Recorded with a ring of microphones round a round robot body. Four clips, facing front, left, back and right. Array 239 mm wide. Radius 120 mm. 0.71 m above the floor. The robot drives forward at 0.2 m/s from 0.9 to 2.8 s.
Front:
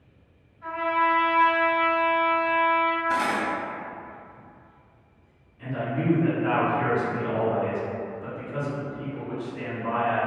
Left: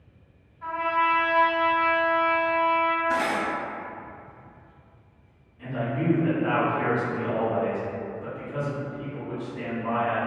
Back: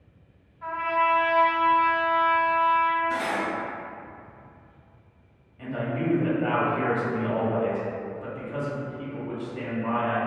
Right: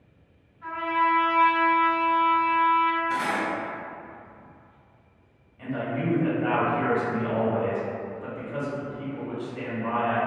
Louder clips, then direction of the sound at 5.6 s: Left 1 dB, even; 160° right.